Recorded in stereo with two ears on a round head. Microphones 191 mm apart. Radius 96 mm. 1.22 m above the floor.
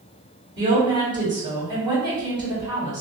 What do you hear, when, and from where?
0.6 s a woman speaking: 20° right (ahead or behind), 1.9 m